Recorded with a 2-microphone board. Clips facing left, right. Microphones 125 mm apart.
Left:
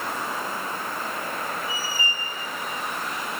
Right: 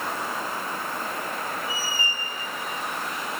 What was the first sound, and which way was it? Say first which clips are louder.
A squeak: even; 5° right (ahead or behind).